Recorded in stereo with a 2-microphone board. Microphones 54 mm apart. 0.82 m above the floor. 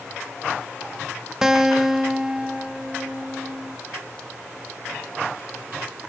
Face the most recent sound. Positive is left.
turn(degrees=-10)  # may be behind; listen again after turning